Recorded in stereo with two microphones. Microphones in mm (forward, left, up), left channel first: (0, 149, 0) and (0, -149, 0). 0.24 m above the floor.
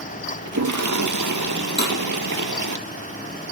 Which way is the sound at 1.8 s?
35° left (ahead or behind).